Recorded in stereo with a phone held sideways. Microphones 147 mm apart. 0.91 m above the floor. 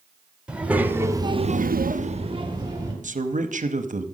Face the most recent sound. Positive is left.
turn(degrees=-60)  # may be behind; listen again after turning